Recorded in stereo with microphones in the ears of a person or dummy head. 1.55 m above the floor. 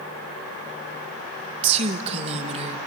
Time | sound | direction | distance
1.6 | a woman speaking | 40° right (ahead or behind) | 1.5 m